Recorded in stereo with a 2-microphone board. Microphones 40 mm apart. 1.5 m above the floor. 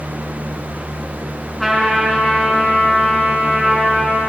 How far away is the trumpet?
About 3 m.